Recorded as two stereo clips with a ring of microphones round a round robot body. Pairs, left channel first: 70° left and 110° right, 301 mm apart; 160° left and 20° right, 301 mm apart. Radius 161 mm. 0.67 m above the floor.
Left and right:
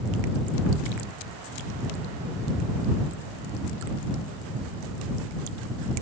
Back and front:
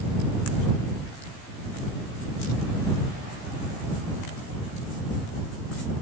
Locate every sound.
Only background noise.